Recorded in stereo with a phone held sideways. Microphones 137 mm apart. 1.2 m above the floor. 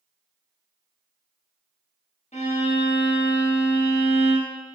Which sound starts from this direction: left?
A violin, at 2.3 s.